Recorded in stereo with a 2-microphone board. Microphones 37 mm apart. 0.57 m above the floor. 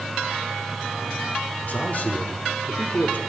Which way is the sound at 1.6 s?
55° left (ahead or behind).